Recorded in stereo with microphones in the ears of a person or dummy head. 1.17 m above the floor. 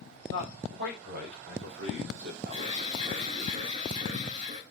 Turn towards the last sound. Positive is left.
turn(degrees=-40)  # may be behind; listen again after turning